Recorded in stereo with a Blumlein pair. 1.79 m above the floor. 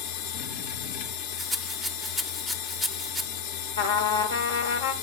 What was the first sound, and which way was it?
A machine running, 45° left.